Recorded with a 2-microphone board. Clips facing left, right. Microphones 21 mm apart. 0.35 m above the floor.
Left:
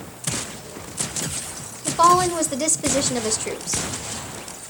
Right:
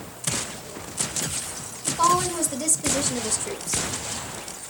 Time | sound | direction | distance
1.9 | a woman speaking | 40° left (ahead or behind) | 1.0 m